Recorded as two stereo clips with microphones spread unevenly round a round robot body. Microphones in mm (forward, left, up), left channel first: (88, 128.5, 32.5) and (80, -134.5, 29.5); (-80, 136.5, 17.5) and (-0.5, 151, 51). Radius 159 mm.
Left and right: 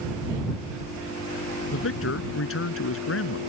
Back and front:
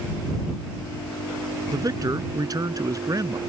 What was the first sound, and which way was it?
A man speaking, 50° left.